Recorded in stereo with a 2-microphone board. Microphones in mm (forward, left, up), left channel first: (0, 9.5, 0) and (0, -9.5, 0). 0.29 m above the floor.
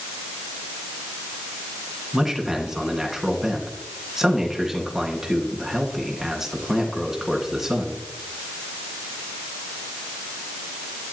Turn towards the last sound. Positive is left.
turn(degrees=-25)  # may be behind; listen again after turning